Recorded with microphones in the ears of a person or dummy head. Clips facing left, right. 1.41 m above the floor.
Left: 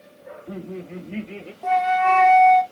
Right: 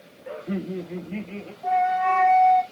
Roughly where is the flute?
Left.